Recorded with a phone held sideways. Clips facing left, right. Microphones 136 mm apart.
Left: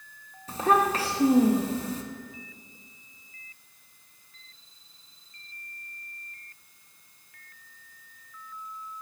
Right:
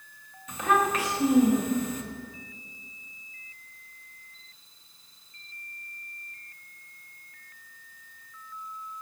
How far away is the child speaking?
About 0.6 m.